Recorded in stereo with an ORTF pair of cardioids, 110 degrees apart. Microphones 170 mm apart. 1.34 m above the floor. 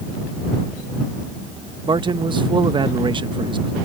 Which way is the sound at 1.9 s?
25° right.